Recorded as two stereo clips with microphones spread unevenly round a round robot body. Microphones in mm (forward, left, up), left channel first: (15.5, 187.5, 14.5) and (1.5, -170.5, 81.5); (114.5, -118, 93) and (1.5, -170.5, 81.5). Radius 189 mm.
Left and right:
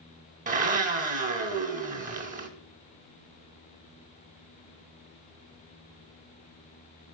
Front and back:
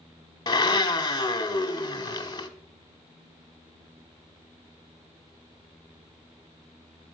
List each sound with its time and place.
0.5 s a blender: 30° right, 0.9 m